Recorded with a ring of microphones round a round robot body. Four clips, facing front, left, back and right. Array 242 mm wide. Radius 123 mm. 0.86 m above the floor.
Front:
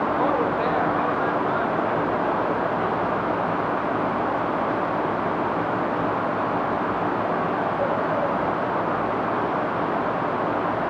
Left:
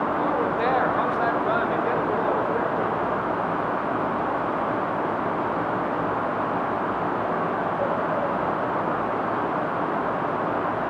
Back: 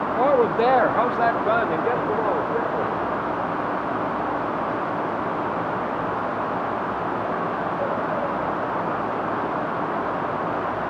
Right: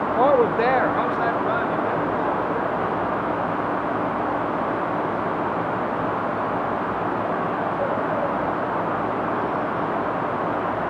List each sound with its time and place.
0.2 s a woman speaking: 115° right, 0.9 m; by 3.0 s 160° left, 3.5 m